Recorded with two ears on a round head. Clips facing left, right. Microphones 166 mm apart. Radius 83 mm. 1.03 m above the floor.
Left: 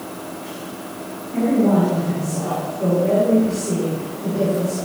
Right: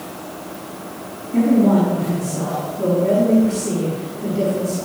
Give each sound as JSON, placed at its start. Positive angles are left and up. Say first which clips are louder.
{"t": 1.3, "sound": "a man speaking", "louder": "right 2 dB", "side_deg": -40, "distance_m": 7.0}